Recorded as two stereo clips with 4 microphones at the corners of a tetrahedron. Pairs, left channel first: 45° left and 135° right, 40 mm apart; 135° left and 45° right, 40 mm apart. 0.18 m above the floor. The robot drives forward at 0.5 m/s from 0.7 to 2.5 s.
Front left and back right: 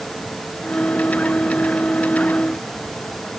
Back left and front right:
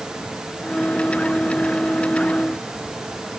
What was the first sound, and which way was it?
Only background noise.